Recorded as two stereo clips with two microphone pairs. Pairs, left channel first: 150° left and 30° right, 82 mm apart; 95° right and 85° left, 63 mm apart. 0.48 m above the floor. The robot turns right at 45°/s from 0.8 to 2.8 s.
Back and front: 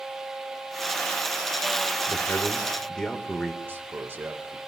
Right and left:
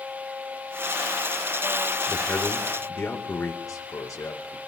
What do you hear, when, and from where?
2.1 s a man speaking: 165° right, 1.3 m; by 3.5 s 130° right, 1.3 m
3.6 s a man speaking: 90° right, 1.5 m